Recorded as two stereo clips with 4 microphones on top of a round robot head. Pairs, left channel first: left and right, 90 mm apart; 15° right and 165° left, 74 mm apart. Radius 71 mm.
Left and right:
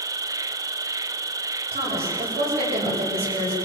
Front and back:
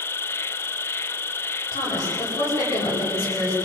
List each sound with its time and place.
0.0 s an insect: 60° right, 0.8 m
1.7 s a woman speaking: 75° right, 9.5 m